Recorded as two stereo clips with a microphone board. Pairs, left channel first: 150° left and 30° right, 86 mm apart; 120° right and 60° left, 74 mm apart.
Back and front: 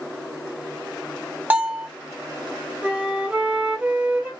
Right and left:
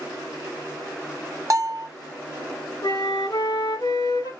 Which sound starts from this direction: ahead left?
A bell, at 1.5 s.